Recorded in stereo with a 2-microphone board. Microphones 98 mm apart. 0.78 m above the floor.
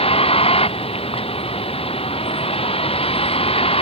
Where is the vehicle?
75° left (ahead or behind).